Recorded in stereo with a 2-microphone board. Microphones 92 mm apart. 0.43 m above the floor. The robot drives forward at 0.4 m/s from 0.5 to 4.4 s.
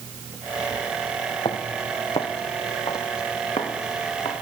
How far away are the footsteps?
About 2 m.